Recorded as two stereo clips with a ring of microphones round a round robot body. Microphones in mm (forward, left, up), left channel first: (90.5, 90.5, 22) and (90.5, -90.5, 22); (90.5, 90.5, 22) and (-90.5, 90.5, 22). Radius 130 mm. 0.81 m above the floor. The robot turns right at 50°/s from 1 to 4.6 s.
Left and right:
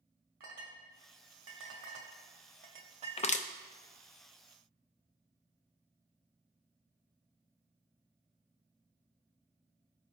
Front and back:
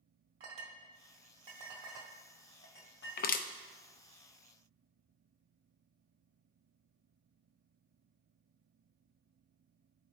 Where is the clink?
140° right, 1.1 m; by 3.5 s 15° right, 1.1 m.